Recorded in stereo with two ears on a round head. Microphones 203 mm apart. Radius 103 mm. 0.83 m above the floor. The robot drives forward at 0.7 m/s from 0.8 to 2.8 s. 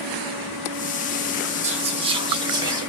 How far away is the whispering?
About 0.8 m.